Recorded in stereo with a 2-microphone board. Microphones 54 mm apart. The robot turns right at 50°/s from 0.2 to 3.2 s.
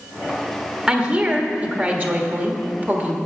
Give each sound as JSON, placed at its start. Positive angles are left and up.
{"t": 0.9, "sound": "a woman speaking", "azimuth_deg": -160, "distance_m": 1.3}